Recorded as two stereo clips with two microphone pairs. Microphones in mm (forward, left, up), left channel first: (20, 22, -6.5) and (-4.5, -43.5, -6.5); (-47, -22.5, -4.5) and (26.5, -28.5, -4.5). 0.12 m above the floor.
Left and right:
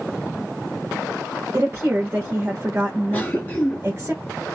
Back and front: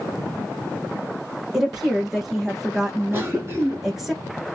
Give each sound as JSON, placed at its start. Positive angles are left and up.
{"t": 1.5, "sound": "a woman speaking", "azimuth_deg": -90, "distance_m": 1.3}
{"t": 3.1, "sound": "a cough", "azimuth_deg": 20, "distance_m": 1.7}